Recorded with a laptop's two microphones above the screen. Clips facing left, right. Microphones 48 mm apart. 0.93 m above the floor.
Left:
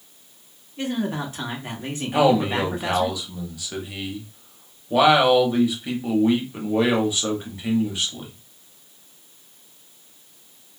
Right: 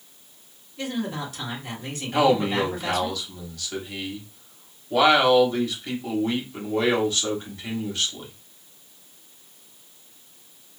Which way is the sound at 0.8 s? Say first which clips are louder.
Left 3 dB; 30° left (ahead or behind).